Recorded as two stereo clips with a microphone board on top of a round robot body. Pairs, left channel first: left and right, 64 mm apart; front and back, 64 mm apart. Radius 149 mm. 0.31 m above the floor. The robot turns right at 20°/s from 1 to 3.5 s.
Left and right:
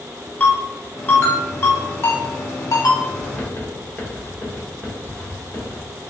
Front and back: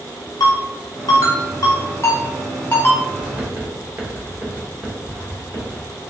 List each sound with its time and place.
0.4 s a ringtone: 25° left, 1.3 m; by 3.0 s 65° left, 1.3 m
3.2 s writing: 120° left, 1.5 m; by 5.8 s 125° left, 1.5 m